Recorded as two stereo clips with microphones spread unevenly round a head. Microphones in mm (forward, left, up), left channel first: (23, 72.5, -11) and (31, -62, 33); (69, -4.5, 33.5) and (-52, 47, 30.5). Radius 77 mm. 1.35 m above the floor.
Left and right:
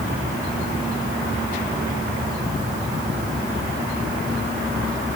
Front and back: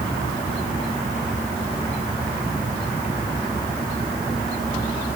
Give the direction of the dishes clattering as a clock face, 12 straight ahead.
I don't hear dishes clattering.